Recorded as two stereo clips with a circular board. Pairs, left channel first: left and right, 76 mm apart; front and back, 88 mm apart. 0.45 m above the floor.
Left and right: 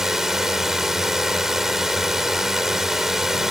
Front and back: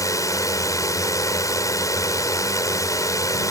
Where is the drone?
10° right.